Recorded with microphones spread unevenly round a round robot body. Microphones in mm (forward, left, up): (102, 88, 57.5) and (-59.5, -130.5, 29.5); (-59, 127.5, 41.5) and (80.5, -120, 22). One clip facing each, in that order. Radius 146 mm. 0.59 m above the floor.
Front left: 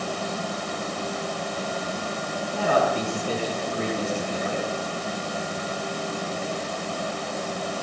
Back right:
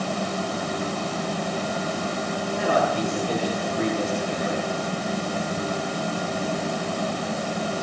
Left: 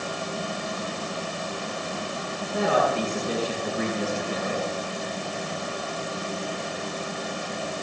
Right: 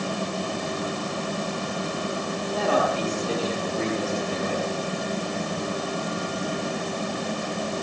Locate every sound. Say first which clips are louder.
2.5 s a man speaking: front left 1 dB, left 1 dB; 45° left, 6.5 m